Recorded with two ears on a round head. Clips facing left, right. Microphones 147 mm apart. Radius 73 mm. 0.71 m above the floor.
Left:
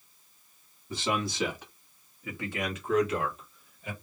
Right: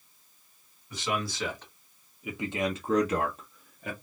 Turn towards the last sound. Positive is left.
turn(degrees=-50)  # may be behind; listen again after turning